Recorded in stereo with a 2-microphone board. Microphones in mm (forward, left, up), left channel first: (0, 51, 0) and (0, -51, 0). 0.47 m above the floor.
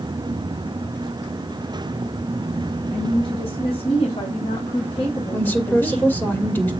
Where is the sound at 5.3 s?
15° left (ahead or behind), 2.0 m.